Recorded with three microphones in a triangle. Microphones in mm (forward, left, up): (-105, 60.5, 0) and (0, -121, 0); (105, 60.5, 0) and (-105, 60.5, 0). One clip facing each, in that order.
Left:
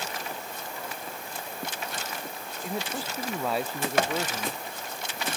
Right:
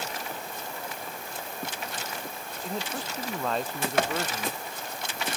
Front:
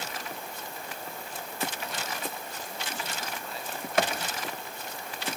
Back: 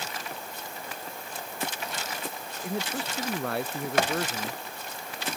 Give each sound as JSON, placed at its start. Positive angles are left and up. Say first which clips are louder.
{"t": 2.6, "sound": "a man speaking", "louder": "left 1 dB, back 10 dB", "azimuth_deg": -155}